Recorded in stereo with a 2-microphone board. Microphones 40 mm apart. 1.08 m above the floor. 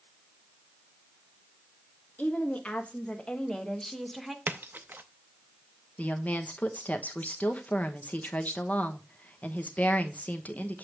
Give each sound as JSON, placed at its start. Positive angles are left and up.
{"t": 2.2, "sound": "a woman speaking", "side_deg": 40, "distance_m": 1.7}
{"t": 4.5, "sound": "a splash", "side_deg": -60, "distance_m": 0.6}
{"t": 6.0, "sound": "a woman speaking", "side_deg": 40, "distance_m": 1.0}